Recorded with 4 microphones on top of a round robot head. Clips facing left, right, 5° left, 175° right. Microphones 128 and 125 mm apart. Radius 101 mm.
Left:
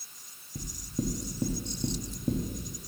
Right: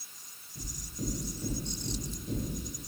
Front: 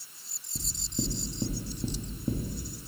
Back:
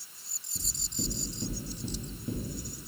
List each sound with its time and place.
0.6 s knocking: 55° left, 1.1 m